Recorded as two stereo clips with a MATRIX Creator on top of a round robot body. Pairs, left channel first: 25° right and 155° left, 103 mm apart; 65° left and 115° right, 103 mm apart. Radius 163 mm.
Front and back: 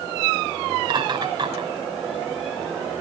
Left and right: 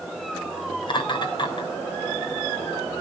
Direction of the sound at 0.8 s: 110° left.